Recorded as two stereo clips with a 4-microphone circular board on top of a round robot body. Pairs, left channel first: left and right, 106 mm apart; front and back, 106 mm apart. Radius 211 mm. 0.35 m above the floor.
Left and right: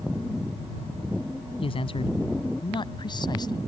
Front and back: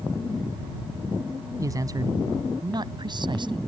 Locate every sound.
1.6 s a man speaking: 120° left; by 3.6 s 140° left